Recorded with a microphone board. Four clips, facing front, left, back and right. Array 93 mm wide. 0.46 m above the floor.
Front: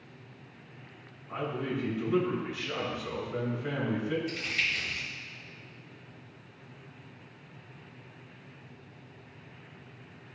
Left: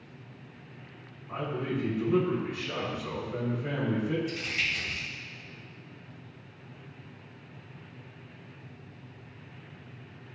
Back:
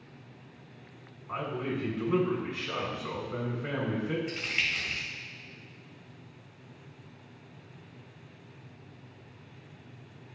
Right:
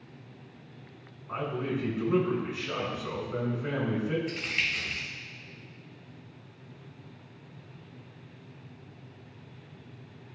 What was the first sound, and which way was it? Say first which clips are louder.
A man speaking: right 1 dB, even; 160° right.